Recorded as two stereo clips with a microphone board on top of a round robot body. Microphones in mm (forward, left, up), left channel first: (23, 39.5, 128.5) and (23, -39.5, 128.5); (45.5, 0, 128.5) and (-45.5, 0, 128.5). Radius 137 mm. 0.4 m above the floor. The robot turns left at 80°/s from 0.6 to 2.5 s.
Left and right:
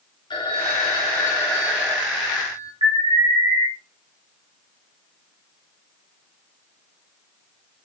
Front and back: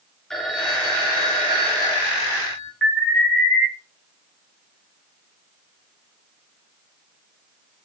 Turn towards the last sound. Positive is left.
turn(degrees=-85)